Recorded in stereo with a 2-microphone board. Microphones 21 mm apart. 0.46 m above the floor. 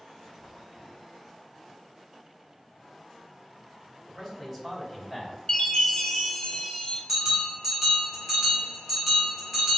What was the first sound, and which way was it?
A man speaking, centre (ahead or behind).